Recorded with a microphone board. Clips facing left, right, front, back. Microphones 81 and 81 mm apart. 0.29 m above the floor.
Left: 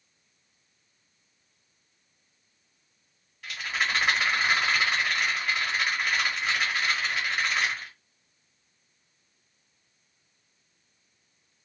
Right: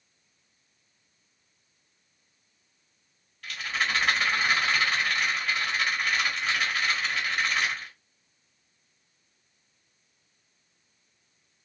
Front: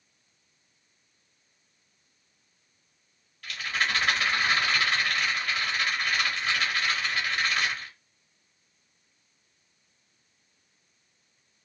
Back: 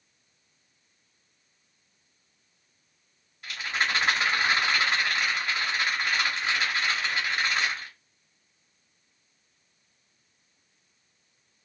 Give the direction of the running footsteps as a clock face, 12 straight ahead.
I don't hear running footsteps.